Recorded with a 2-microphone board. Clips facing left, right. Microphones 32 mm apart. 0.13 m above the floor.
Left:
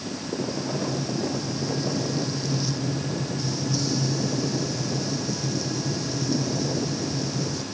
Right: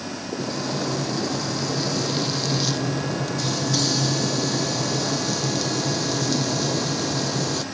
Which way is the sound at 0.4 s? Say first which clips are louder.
Right 2 dB; 75° right (ahead or behind).